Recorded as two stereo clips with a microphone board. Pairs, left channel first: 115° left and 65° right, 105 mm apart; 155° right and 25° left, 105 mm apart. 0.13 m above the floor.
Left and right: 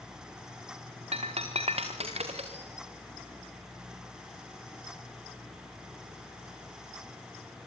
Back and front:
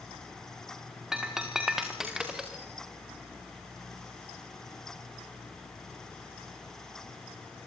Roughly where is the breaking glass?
Ahead right.